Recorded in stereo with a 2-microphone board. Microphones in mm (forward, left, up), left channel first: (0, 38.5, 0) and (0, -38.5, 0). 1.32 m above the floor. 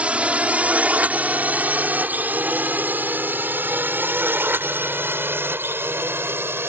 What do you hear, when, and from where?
0.0 s a drone: 15° right (ahead or behind); by 6.7 s 30° right (ahead or behind)